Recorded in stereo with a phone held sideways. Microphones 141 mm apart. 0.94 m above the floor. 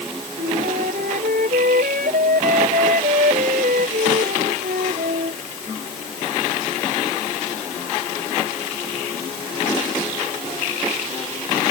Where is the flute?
85° right.